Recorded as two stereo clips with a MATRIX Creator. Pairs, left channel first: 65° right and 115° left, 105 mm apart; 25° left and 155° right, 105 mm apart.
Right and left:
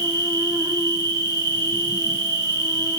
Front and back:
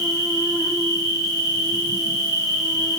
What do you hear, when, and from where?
0.0 s an insect: 70° left, 2.5 m